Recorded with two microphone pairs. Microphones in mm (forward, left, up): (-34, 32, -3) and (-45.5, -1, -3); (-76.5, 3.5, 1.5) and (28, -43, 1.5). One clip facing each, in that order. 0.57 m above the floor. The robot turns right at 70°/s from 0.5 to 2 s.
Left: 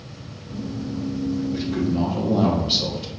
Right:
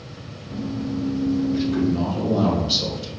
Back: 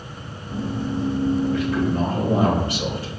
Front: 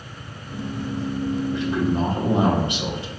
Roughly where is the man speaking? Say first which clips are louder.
Right 2 dB, back 1 dB; ahead right.